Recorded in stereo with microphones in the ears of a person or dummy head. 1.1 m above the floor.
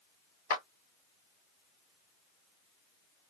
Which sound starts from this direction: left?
A clap, at 0.5 s.